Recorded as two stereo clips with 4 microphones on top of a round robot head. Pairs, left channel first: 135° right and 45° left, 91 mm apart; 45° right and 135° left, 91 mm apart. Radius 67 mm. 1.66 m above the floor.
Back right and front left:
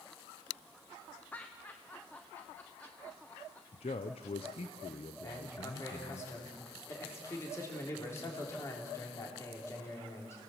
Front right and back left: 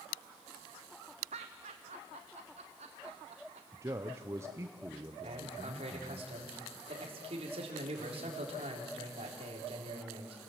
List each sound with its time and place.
1.3 s laughter: 150° left, 0.7 m
3.7 s a man speaking: 160° right, 0.8 m
5.2 s a man speaking: 160° left, 3.5 m